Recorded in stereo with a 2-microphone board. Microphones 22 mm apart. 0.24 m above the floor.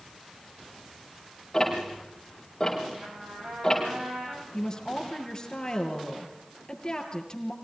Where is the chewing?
I don't hear chewing.